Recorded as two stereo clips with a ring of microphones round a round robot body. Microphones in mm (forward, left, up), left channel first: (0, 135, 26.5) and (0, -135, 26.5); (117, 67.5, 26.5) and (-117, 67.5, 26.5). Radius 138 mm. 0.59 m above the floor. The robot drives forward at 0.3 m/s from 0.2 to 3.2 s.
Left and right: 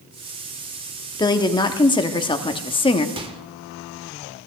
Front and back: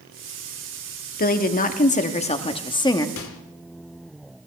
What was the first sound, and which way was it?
A woman speaking, 20° left.